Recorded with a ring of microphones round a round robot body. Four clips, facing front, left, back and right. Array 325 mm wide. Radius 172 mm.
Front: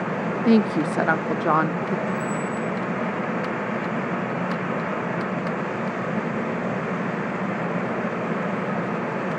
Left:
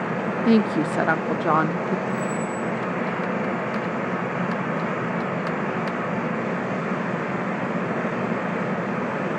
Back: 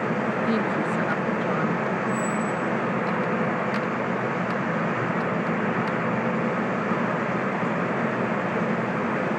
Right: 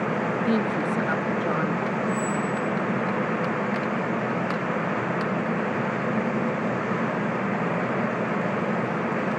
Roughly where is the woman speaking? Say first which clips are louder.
Left 8 dB, front 10 dB; ahead left.